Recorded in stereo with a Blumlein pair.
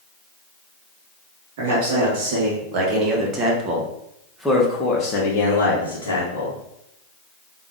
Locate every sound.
1.6 s a man speaking: 50° right, 2.0 m; by 6.6 s 75° left, 1.3 m